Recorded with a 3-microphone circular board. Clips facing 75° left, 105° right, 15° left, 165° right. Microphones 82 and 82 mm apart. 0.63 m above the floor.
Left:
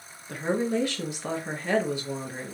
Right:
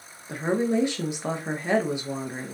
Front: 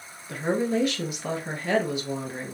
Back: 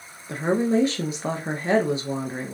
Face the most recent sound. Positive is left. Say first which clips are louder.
# right 2 dB, back 3 dB
turn(degrees=-155)